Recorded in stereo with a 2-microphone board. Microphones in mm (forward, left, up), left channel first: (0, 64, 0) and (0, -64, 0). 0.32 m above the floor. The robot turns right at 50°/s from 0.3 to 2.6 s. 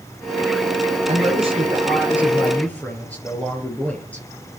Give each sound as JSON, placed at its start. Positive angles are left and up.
{"t": 1.1, "sound": "a man speaking", "azimuth_deg": -65, "distance_m": 5.5}